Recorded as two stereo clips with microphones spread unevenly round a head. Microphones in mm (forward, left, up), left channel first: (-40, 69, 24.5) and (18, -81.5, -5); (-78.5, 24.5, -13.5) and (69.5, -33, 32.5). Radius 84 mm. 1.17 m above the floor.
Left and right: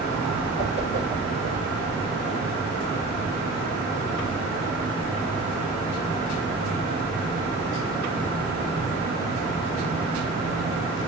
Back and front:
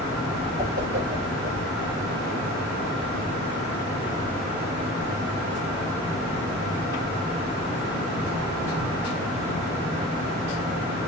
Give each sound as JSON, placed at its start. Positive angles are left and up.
{"t": 0.6, "sound": "a whoosh", "azimuth_deg": 55, "distance_m": 3.0}